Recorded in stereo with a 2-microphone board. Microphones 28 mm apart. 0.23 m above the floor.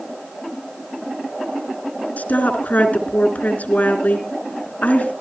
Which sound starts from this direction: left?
A woman speaking, at 2.2 s.